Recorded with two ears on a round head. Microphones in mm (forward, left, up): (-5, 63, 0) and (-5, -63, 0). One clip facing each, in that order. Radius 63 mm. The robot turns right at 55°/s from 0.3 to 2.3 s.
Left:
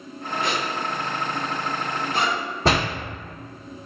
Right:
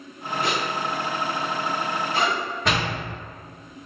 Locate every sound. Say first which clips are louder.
0.4 s a zipper: right 1 dB; 40° left (ahead or behind), 1.4 m; by 2.4 s 30° left (ahead or behind), 1.4 m
2.6 s a door slam: left 5 dB; 30° left (ahead or behind), 0.6 m